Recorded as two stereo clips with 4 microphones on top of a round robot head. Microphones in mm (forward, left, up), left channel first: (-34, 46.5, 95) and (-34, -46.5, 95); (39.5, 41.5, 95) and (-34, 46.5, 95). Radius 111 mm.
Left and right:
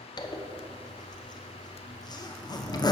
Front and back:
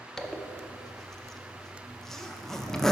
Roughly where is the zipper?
Left.